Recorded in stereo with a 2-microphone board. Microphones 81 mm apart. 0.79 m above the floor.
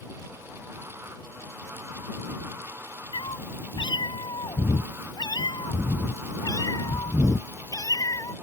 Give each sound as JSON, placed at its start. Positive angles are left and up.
{"t": 3.1, "sound": "a cat meowing", "side_deg": 85}